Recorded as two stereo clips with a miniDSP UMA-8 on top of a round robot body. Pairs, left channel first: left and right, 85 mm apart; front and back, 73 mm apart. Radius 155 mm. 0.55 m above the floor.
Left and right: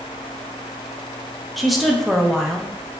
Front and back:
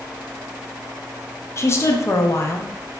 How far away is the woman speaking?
About 0.7 m.